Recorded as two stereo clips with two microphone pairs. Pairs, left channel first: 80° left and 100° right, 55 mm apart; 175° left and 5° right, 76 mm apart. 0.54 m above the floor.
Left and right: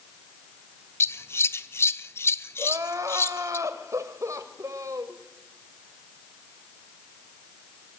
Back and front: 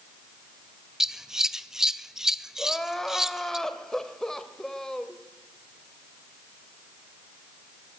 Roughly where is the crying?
Right.